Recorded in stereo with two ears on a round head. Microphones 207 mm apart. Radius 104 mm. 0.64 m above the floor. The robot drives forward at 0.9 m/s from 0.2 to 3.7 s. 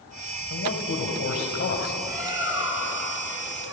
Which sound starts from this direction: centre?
A bird, at 2.0 s.